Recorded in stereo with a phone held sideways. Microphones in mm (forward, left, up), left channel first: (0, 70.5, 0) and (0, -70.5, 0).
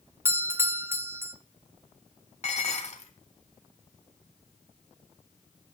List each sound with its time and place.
0.2 s a doorbell: 15° right (ahead or behind), 0.8 m
2.4 s dishes clattering: 50° left (ahead or behind), 1.6 m